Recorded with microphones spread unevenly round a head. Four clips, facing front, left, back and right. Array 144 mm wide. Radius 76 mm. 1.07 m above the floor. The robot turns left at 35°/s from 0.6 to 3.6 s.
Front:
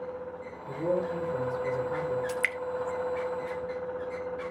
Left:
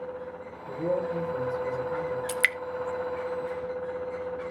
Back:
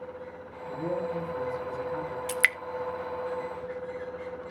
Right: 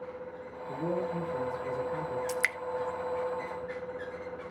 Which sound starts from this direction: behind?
Dripping, at 2.3 s.